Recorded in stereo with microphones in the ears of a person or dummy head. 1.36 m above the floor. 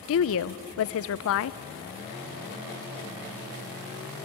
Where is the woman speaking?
80° left, 0.6 m.